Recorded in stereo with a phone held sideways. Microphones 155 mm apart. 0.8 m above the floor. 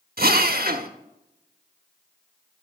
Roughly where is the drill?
Right.